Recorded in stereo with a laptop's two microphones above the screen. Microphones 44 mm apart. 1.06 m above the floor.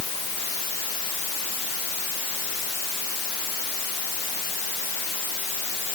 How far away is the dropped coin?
No dropped coin in this recording.